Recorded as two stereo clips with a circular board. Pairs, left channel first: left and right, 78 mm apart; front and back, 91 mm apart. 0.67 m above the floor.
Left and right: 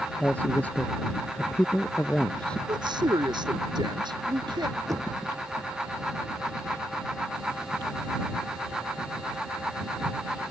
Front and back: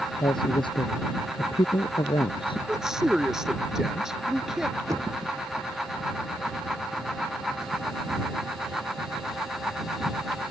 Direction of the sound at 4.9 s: 130° right.